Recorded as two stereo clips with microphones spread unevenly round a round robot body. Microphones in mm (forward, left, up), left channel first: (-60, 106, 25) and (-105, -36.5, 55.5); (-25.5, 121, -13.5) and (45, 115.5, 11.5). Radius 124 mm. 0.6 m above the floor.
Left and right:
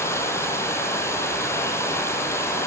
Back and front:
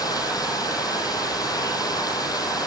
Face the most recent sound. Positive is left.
turn(degrees=145)